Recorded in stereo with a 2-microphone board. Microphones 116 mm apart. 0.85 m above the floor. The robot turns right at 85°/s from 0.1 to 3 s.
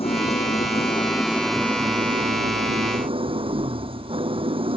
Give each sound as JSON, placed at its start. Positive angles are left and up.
{"t": 0.0, "sound": "an engine running", "azimuth_deg": 60}